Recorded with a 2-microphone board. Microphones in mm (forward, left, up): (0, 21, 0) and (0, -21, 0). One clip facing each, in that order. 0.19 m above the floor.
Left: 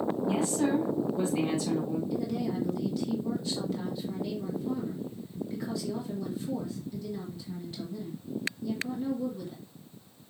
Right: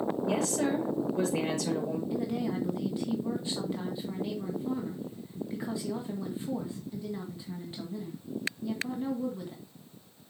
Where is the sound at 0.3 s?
70° right (ahead or behind), 5 m.